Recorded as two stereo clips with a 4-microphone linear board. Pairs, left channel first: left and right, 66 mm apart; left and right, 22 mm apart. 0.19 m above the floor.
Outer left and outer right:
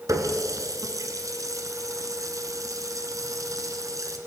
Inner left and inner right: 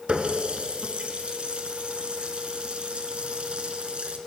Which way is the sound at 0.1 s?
60° right (ahead or behind).